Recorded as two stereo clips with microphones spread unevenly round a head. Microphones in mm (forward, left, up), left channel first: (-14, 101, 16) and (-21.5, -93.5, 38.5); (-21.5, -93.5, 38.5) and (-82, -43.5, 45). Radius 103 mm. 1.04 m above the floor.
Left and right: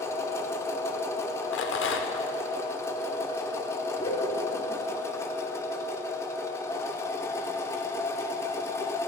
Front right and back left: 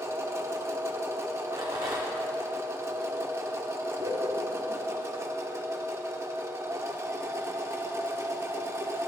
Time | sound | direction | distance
0.0 | a machine running | 165° left | 0.7 m
1.5 | a rattle | 95° left | 0.8 m
4.0 | laughter | 155° left | 2 m